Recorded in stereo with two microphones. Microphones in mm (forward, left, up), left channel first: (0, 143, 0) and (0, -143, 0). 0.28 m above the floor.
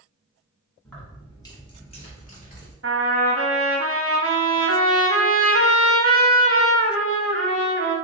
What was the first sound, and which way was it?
Keys jangling, 5° left (ahead or behind).